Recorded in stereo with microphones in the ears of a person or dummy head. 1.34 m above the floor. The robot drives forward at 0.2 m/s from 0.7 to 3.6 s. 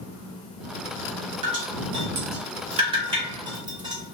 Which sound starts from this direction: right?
Dripping, at 1.4 s.